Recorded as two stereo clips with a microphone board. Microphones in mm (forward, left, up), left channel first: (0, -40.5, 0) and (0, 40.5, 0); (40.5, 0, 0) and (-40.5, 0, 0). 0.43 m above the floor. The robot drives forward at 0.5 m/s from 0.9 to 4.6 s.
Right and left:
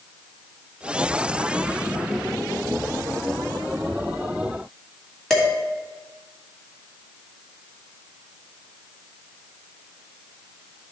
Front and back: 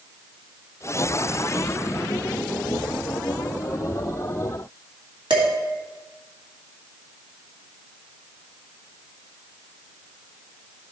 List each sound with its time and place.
5.3 s dishes clattering: 175° right, 2 m